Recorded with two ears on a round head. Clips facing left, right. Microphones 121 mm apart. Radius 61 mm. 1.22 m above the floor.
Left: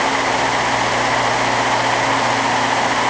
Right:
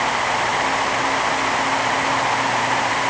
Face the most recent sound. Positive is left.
No sound to turn to.